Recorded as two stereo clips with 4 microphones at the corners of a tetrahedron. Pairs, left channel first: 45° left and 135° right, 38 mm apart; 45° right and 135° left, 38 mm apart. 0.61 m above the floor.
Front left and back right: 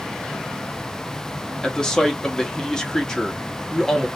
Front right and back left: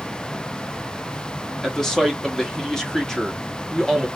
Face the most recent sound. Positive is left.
turn(degrees=5)